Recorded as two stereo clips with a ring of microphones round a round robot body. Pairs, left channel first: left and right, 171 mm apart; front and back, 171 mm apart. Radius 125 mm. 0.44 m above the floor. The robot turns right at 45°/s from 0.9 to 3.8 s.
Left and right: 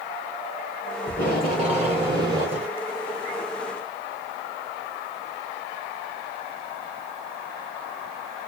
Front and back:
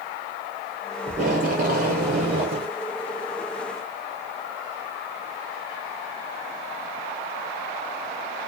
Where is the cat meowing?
No cat meowing in this recording.